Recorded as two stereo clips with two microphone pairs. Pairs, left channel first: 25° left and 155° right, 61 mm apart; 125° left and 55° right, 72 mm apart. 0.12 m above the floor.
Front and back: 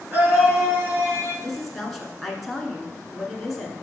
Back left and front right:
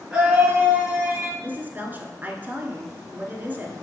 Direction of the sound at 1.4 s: 65° right.